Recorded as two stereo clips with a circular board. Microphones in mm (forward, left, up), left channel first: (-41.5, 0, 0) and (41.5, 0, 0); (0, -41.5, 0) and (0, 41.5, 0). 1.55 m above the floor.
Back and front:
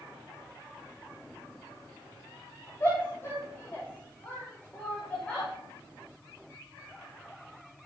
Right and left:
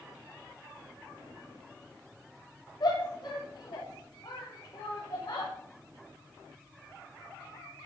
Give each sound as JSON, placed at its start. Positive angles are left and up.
{"t": 2.8, "sound": "a shout", "azimuth_deg": -120, "distance_m": 6.5}